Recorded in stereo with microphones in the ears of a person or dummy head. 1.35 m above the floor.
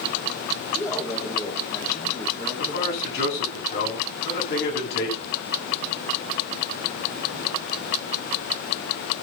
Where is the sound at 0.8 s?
20° left (ahead or behind), 3 m.